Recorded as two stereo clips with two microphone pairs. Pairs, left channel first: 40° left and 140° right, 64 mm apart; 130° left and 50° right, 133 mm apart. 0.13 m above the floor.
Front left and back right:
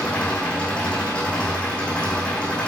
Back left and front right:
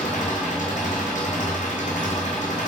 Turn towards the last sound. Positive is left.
turn(degrees=110)